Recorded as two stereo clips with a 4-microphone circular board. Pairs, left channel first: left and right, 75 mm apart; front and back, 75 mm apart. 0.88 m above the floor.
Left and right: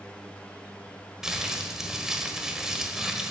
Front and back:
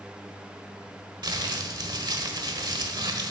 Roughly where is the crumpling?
Behind.